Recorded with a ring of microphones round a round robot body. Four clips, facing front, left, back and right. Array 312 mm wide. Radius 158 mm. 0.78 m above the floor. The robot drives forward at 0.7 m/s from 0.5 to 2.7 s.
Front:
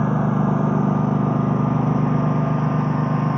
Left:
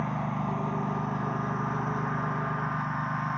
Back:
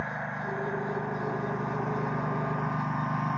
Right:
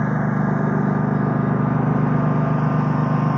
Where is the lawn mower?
40° right; by 3.4 s 60° right.